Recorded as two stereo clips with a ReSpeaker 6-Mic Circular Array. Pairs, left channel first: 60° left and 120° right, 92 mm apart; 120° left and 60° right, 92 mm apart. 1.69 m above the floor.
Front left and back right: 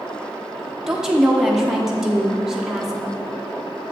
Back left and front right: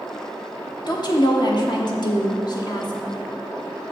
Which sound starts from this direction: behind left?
A woman speaking, at 0.9 s.